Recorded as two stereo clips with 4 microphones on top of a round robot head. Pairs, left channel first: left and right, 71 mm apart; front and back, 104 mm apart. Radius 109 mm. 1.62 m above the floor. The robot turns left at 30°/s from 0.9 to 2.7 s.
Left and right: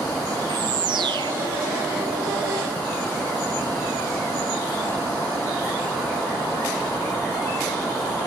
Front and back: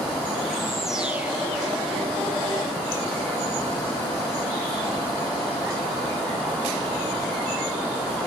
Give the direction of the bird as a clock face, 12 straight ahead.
3 o'clock.